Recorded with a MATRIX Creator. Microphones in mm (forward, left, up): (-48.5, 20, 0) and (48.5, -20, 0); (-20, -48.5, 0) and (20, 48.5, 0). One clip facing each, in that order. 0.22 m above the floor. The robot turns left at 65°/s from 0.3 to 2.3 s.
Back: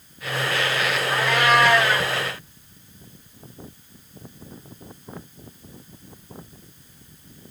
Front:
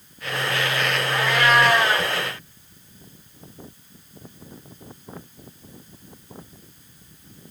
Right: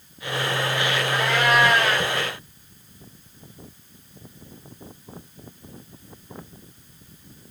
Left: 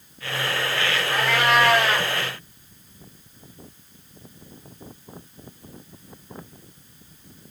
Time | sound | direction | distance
1.1 | a cat meowing | 95° left | 4.5 m